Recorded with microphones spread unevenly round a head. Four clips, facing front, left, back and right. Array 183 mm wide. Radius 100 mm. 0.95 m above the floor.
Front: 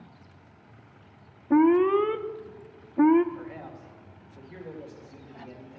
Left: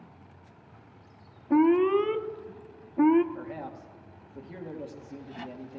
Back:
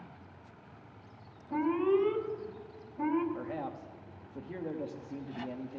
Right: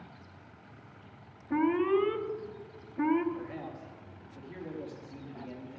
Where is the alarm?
25° left, 0.6 m.